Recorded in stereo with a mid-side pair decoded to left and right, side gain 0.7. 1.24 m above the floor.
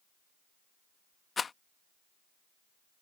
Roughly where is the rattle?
Ahead left.